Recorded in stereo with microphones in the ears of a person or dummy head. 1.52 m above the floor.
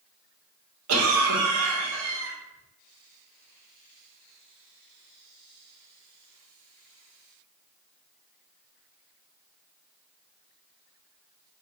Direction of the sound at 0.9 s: 80° right.